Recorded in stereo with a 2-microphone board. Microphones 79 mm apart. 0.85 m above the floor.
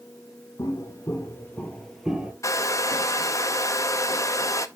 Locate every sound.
0.6 s footsteps: 45° left (ahead or behind), 1.7 m; by 2.3 s 15° right (ahead or behind), 1.0 m
2.4 s a hair dryer: 45° left (ahead or behind), 0.6 m